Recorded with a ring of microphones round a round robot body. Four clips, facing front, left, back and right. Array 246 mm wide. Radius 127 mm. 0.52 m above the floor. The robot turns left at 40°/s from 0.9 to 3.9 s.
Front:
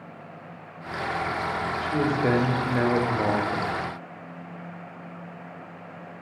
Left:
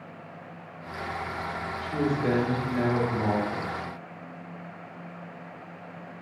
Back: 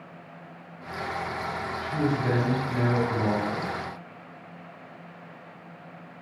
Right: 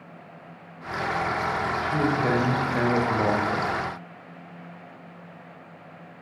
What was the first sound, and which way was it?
A man speaking, straight ahead.